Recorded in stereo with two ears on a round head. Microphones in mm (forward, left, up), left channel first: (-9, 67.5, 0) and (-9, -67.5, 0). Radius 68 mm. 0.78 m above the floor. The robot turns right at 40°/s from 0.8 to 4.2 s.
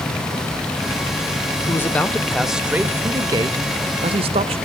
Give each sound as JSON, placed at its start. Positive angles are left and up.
{"t": 1.7, "sound": "a man speaking", "azimuth_deg": 150, "distance_m": 0.8}